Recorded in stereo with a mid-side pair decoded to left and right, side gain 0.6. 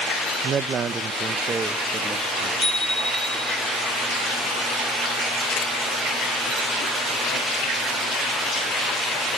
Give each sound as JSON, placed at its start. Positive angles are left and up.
{"t": 0.4, "sound": "a man speaking", "azimuth_deg": -40, "distance_m": 0.8}
{"t": 2.6, "sound": "a bicycle bell", "azimuth_deg": -10, "distance_m": 9.0}